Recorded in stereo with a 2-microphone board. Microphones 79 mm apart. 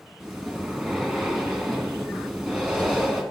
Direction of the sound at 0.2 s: 10° right (ahead or behind).